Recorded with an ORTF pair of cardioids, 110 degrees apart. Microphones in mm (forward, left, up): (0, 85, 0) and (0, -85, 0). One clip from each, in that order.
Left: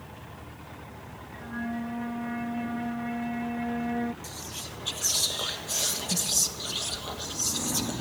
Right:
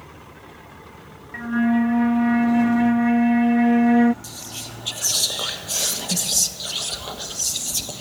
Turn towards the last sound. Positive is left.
turn(degrees=-30)